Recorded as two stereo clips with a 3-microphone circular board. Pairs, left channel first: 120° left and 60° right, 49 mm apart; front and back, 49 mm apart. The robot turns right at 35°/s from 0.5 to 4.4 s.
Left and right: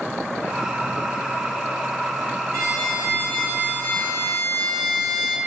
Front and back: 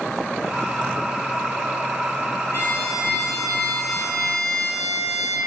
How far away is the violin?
About 1.1 m.